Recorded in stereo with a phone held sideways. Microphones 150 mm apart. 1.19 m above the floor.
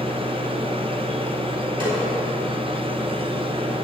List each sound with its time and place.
0.0 s a machine running: 35° right (ahead or behind), 0.8 m
1.8 s a snare drum: 35° right (ahead or behind), 4.5 m